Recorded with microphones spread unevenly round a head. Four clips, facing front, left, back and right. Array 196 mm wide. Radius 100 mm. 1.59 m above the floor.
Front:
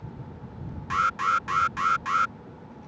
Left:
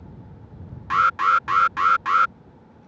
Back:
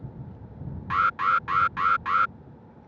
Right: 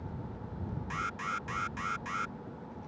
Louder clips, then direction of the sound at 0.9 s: Left 20 dB, back 1 dB; 90° left.